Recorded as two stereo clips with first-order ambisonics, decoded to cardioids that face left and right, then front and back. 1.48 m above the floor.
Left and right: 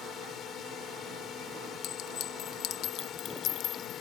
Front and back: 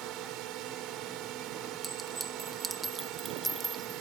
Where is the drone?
145° left.